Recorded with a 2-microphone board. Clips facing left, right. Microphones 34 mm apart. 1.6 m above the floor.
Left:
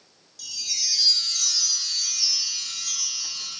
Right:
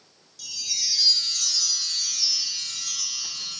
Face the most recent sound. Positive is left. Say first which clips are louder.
# even
turn(degrees=-5)  # may be behind; listen again after turning